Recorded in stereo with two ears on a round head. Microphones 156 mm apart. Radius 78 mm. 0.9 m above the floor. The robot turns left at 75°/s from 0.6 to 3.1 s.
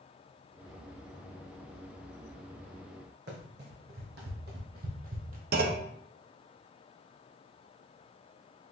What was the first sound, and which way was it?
Running footsteps, 65° right (ahead or behind).